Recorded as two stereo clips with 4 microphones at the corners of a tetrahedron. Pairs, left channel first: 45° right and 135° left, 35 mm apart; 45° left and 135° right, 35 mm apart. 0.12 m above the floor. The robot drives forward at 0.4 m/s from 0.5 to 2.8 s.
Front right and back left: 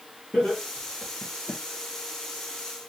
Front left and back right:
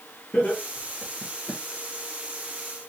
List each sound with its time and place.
0.3 s laughter: 50° left, 2 m; by 1.6 s 65° left, 1.9 m